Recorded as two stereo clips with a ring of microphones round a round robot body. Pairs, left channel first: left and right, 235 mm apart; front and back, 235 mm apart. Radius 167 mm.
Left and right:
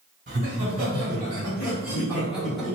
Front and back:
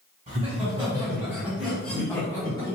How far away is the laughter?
About 1.5 m.